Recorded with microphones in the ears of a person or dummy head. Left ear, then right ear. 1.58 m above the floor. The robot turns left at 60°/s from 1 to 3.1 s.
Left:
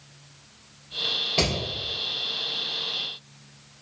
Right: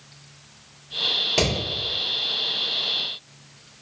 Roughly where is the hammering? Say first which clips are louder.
Even; right.